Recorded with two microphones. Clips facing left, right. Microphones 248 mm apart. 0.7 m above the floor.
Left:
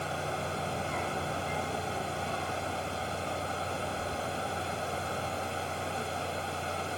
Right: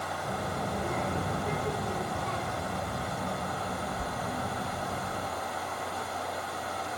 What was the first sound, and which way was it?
A child speaking, 30° right (ahead or behind).